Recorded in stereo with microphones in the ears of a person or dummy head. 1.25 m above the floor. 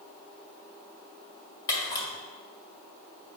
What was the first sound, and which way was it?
A camera shutter, 20° left (ahead or behind).